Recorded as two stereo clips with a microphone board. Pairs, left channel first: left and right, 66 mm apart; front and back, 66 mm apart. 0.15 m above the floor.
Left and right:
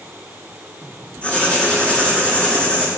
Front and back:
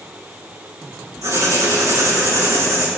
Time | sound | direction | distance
1.2 | writing | 160° left | 6.5 m